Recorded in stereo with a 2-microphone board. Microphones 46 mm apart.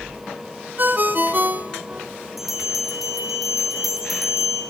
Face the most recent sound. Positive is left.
turn(degrees=-5)  # may be behind; listen again after turning